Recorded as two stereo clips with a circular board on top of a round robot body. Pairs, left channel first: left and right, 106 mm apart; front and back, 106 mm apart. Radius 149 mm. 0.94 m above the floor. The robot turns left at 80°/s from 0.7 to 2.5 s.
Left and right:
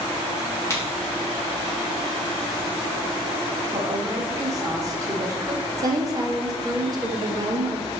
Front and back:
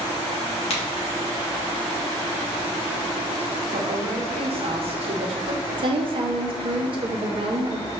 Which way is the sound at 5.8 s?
145° right.